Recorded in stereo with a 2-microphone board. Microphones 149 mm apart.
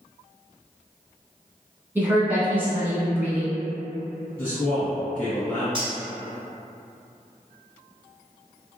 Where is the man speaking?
10° left (ahead or behind), 1.9 m.